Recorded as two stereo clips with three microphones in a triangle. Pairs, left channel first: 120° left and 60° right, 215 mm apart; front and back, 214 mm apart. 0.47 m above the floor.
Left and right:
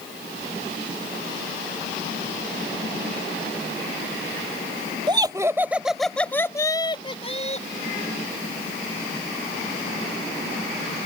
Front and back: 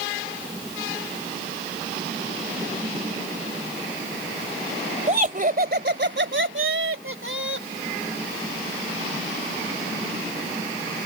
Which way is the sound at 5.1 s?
125° right.